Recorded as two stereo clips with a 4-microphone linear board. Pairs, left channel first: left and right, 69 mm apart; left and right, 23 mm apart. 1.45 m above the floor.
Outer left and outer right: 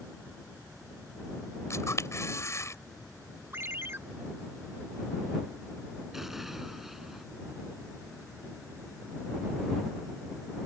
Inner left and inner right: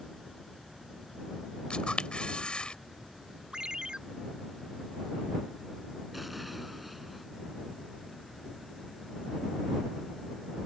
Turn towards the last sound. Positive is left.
turn(degrees=-5)  # may be behind; listen again after turning